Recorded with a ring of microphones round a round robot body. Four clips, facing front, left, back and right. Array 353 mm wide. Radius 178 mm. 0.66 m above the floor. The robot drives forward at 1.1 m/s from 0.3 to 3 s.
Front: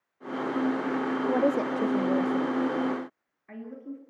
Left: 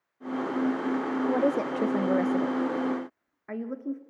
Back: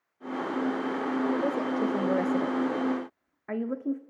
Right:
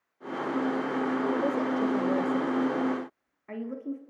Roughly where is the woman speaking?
Ahead left.